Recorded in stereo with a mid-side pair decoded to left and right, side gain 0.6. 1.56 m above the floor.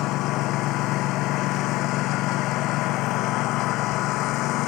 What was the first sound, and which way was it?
A lawn mower, 65° left.